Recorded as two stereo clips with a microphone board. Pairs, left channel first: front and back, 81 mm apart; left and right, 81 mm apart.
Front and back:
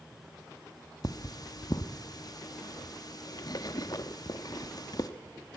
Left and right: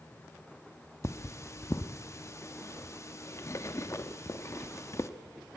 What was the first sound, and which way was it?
Cutlery clinking, 35° left.